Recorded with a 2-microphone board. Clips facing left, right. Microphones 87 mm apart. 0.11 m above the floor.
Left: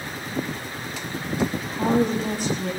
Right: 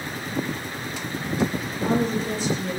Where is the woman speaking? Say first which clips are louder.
Left 5 dB; 60° left (ahead or behind), 9.5 m.